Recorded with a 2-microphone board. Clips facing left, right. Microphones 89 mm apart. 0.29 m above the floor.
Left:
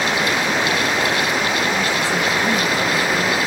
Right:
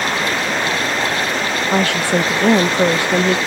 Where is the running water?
5° left (ahead or behind).